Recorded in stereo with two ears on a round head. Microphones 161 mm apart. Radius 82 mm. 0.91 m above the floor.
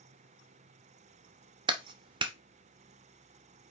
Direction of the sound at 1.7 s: 25° right (ahead or behind).